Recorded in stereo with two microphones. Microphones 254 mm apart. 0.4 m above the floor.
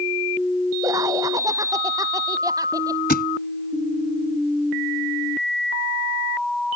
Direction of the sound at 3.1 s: 40° left (ahead or behind).